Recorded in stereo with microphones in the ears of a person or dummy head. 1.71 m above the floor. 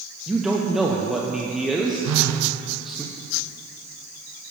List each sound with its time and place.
0.3 s a man speaking: centre (ahead or behind), 0.8 m
2.0 s a phone buzzing: 75° right (ahead or behind), 0.8 m